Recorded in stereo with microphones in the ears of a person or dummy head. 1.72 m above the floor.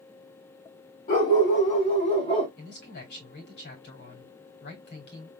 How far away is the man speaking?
About 3.5 m.